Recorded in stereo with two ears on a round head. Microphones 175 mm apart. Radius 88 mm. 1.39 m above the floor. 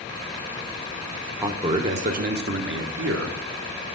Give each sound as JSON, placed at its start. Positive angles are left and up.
{"t": 1.4, "sound": "a man speaking", "side_deg": -15, "distance_m": 0.7}